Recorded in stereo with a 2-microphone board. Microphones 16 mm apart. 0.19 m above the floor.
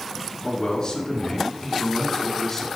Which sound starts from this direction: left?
A man speaking, at 0.4 s.